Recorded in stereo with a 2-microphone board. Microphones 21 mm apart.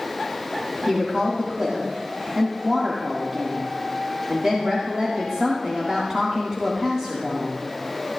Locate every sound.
0.9 s a woman speaking: 35° right (ahead or behind), 1.9 m